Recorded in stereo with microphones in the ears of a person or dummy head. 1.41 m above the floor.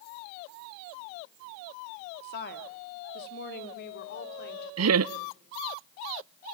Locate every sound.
2.2 s a woman speaking: 65° left (ahead or behind), 2.5 m
4.8 s laughter: 85° right, 0.5 m